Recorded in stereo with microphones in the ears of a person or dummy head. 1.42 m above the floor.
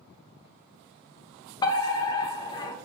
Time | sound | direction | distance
1.6 | a fire alarm | 20° left (ahead or behind) | 1.1 m